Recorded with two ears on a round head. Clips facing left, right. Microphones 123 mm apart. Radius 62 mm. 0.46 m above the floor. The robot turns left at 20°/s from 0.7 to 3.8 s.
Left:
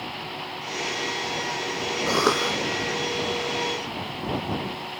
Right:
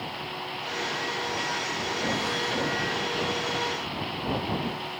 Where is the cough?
80° left; by 2.6 s 70° left (ahead or behind).